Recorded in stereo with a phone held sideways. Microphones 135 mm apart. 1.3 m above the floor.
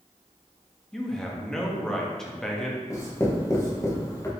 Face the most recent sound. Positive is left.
turn(degrees=20)  # may be behind; listen again after turning